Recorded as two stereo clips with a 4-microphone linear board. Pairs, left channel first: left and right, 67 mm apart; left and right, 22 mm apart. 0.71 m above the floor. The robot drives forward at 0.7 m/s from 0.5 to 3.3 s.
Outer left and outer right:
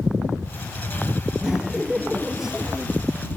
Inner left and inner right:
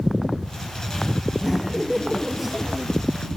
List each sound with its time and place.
1.3 s laughter: 5° right (ahead or behind)